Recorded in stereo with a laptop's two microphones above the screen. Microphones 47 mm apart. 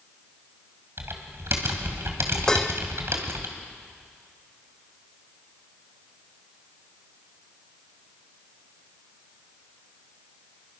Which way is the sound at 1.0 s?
60° right (ahead or behind).